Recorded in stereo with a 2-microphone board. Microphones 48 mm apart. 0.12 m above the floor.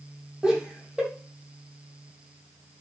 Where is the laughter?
15° right (ahead or behind), 3.5 m.